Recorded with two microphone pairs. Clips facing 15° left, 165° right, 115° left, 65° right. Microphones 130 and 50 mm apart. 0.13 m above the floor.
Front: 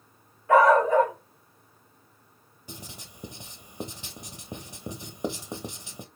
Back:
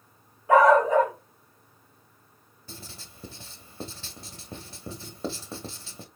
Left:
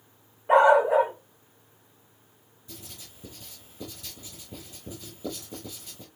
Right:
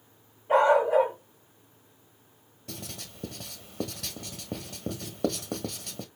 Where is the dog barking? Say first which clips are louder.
Back 1 dB, left 3 dB; 125° left, 2.5 m.